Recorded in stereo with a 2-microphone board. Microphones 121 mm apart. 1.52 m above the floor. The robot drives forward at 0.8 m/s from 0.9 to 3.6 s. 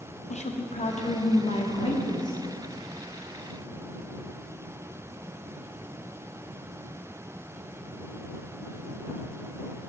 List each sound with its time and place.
0.3 s a woman speaking: 70° left (ahead or behind), 0.8 m; by 2.4 s 35° left (ahead or behind), 1.3 m